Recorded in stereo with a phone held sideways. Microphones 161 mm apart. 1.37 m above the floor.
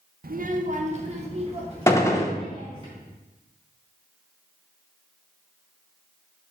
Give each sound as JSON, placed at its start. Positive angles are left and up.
{"t": 0.2, "sound": "a child speaking", "side_deg": -65, "distance_m": 0.6}
{"t": 1.9, "sound": "a gunshot", "side_deg": 20, "distance_m": 0.8}